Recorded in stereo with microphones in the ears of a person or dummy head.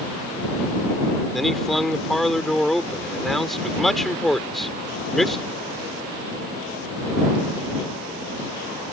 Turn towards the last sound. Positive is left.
turn(degrees=0)  # may be behind; listen again after turning